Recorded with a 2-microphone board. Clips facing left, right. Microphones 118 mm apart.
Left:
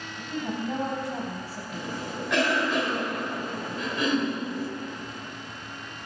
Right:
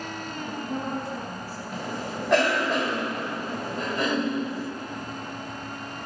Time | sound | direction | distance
0.2 | a woman speaking | 85° left | 4 m
1.7 | a cough | 40° right (ahead or behind) | 3 m